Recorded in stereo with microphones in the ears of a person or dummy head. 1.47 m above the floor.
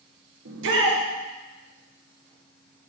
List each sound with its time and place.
0.5 s a shout: 70° right (ahead or behind), 1.7 m